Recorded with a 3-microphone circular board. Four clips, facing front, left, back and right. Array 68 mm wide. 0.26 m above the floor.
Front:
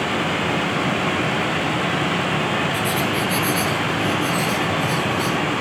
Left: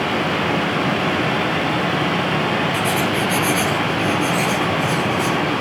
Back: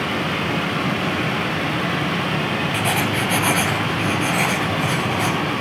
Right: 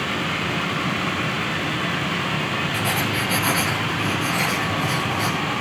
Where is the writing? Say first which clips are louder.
Left 4 dB, even; straight behind, 2.5 m.